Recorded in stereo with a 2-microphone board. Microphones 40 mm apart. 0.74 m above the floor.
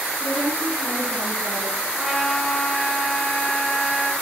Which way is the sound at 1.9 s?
5° left (ahead or behind).